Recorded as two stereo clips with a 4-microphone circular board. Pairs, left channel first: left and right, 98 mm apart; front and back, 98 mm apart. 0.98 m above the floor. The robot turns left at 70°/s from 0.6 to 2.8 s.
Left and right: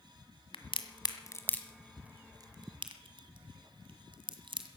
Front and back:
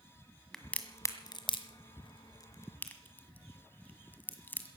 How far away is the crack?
About 1.6 m.